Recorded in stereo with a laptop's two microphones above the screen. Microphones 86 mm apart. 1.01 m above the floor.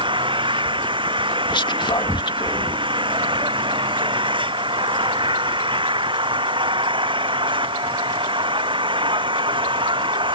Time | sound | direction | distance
0.0 | an engine running | 70° right (ahead or behind) | ?
1.5 | whispering | 65° left (ahead or behind) | ?